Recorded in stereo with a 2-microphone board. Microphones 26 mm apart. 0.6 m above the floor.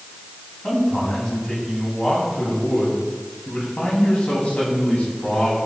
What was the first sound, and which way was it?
A man speaking, 20° left (ahead or behind).